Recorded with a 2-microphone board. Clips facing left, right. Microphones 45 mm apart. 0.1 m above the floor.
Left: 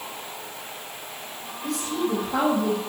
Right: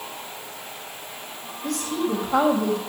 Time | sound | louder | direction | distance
1.6 | a woman speaking | right 1 dB | 65° right (ahead or behind) | 5 m